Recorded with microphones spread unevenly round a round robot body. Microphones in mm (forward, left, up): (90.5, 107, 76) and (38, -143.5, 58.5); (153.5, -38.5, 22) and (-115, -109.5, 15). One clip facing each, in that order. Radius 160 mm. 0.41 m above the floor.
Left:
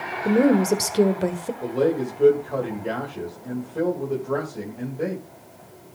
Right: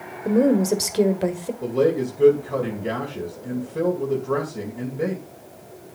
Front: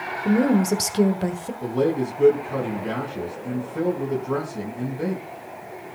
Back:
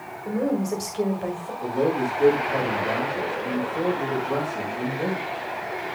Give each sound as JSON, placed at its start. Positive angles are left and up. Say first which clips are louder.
{"t": 0.2, "sound": "a woman speaking", "louder": "even, front 5 dB", "azimuth_deg": 0, "distance_m": 1.7}
{"t": 1.6, "sound": "a man speaking", "louder": "right 2 dB, front 1 dB", "azimuth_deg": -40, "distance_m": 2.5}